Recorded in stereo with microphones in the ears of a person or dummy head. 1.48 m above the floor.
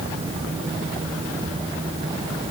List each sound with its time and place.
Only background noise.